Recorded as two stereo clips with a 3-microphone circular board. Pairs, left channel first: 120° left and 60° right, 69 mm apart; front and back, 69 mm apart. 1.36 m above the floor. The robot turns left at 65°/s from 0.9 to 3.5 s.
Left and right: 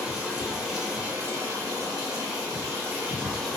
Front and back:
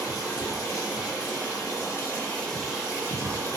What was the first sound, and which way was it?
Running water, 15° left.